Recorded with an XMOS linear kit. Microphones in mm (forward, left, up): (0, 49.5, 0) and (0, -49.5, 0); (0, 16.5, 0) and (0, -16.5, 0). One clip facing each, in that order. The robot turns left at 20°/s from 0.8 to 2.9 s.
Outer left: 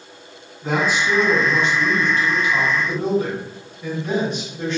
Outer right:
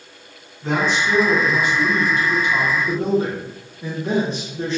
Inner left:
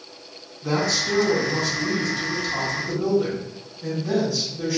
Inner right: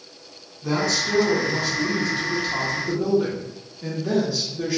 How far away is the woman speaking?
About 0.8 m.